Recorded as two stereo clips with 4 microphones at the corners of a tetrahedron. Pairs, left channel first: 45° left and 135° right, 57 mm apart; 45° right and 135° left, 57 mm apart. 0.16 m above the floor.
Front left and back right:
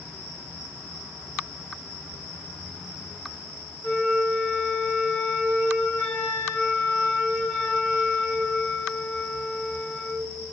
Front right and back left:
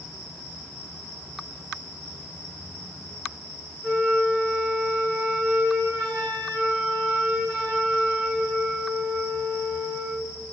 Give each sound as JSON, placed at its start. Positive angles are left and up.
{"t": 3.8, "sound": "a flute", "azimuth_deg": 70, "distance_m": 1.6}